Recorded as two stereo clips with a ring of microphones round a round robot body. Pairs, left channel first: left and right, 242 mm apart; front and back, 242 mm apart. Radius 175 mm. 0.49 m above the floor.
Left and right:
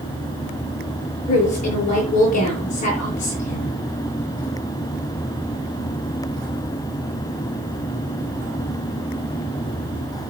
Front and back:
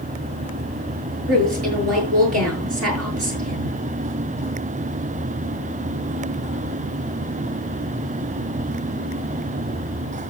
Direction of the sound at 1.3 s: 160° left.